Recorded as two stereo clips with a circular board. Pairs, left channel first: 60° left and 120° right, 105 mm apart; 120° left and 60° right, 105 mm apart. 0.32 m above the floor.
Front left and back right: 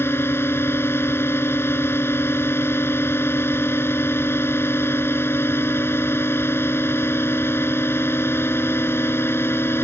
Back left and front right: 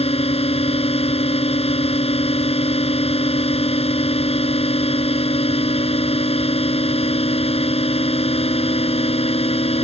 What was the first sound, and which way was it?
A drone, 130° left.